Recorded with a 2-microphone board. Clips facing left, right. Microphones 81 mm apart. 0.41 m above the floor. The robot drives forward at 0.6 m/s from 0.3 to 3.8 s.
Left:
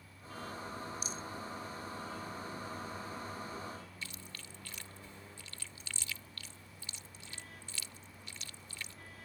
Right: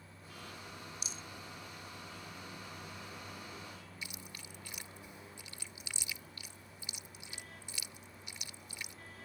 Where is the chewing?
15° right (ahead or behind).